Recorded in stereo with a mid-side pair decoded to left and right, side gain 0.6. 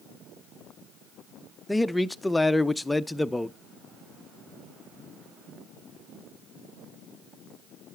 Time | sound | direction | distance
1.7 | a man speaking | 10° left | 0.5 m